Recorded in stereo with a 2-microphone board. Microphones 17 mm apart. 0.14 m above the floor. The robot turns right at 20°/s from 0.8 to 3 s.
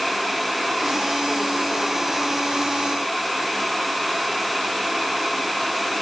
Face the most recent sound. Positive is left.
No sound to turn to.